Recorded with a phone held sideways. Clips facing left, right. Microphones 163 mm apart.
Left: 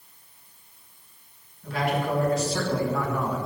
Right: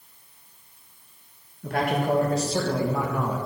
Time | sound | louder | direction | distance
1.6 | a man speaking | right 2 dB | 55° right (ahead or behind) | 1.5 m